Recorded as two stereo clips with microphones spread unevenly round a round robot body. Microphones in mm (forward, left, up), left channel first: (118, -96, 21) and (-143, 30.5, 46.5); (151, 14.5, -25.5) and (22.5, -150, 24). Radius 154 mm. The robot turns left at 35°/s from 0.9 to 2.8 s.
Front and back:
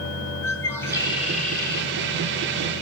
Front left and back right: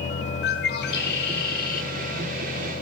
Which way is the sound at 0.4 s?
50° left.